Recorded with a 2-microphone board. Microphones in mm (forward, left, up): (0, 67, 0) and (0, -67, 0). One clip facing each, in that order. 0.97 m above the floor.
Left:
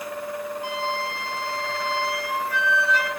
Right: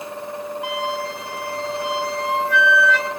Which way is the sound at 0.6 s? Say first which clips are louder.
Right 4 dB; 85° right.